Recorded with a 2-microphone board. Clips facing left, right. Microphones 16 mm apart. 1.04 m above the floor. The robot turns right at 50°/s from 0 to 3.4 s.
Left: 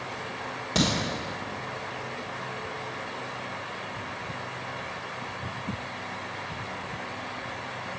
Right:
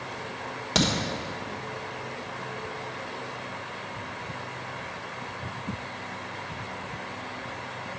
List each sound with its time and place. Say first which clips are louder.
0.8 s a crack: right 1 dB; 30° right (ahead or behind), 1.3 m; by 0.9 s 40° right (ahead or behind), 1.3 m